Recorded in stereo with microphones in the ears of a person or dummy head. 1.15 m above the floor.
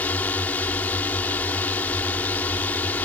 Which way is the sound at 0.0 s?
10° left (ahead or behind).